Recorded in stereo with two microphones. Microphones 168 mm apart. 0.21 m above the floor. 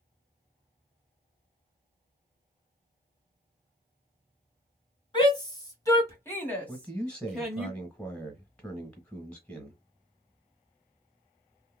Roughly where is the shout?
Left.